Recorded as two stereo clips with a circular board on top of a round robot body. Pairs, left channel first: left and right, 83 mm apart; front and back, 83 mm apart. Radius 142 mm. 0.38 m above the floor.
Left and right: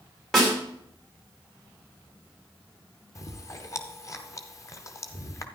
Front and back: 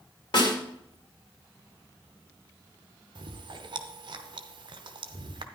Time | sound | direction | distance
0.3 | a snare drum | 5° left | 4.5 m
3.1 | chewing | 145° left | 0.6 m